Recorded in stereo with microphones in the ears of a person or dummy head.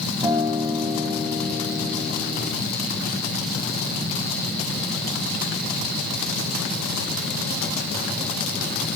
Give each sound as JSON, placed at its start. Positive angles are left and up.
{"t": 0.2, "sound": "a guitar", "side_deg": -20, "distance_m": 5.0}